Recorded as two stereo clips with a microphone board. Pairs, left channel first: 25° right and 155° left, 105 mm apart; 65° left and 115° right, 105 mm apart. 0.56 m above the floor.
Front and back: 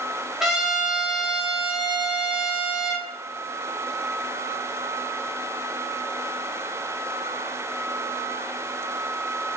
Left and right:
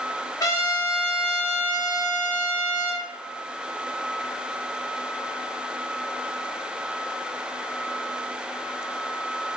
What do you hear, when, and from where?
0.4 s a trumpet: 75° left, 0.6 m